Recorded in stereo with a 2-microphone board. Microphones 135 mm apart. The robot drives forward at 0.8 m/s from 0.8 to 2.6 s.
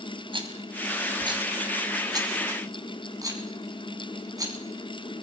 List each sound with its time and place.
0.3 s a rattle: 40° right (ahead or behind), 3 m; by 4.5 s 30° right (ahead or behind), 4 m